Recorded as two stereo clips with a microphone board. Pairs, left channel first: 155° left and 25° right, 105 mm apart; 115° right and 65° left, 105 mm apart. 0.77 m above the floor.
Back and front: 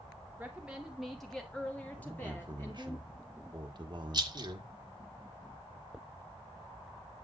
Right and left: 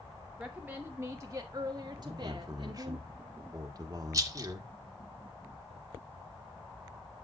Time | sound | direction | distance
0.4 | a woman speaking | 10° left | 0.9 m
2.0 | a man speaking | 15° left | 1.2 m
4.1 | a rattle | 15° left | 0.8 m